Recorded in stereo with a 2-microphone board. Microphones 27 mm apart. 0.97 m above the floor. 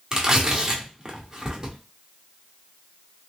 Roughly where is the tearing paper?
Right.